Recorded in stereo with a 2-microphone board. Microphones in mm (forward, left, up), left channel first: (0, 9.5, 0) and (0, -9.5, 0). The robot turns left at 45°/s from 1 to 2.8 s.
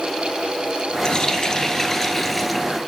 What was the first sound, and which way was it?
A running tap, 70° left.